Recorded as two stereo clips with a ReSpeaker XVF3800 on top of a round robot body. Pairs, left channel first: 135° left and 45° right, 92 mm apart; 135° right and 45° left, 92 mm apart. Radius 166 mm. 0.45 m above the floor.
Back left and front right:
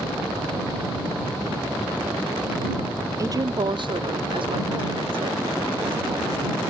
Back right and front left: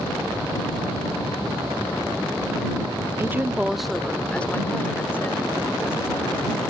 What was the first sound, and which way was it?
A woman speaking, 5° right.